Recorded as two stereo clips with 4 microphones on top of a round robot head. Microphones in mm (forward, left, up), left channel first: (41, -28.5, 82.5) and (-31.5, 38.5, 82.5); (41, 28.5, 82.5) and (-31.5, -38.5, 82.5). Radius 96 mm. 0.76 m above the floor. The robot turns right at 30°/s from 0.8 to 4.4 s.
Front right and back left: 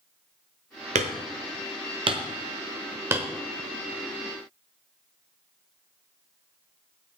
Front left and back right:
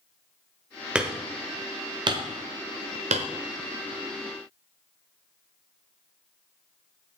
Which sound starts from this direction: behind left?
Hammering, at 0.9 s.